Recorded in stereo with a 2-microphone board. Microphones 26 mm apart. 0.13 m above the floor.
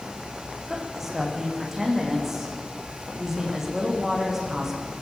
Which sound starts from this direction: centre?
A woman speaking, at 0.7 s.